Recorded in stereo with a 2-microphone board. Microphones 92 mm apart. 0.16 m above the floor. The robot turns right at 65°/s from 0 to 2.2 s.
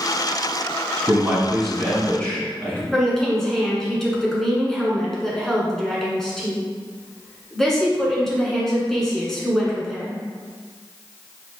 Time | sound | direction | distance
1.1 | a man speaking | 15° right (ahead or behind) | 1.5 m
2.9 | a woman speaking | 5° left (ahead or behind) | 1.5 m